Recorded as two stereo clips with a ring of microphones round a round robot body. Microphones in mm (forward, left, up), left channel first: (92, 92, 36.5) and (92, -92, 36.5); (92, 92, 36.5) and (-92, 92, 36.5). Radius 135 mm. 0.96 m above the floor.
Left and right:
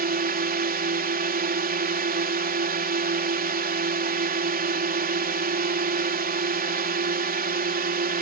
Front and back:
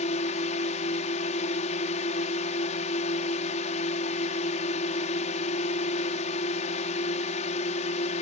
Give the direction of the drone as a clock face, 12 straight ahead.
2 o'clock.